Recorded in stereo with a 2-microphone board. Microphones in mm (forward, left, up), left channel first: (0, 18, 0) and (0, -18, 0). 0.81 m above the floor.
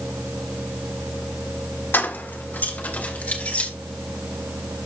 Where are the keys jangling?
70° left (ahead or behind), 1.6 m; by 3.7 s 40° left (ahead or behind), 3 m.